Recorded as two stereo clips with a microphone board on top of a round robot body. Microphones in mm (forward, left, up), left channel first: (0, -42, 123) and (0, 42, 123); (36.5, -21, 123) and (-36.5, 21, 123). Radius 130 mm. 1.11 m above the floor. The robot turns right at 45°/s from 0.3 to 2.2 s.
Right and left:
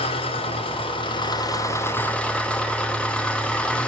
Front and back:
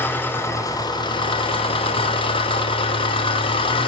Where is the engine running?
100° right, 2 m; by 3.9 s 10° right, 2 m.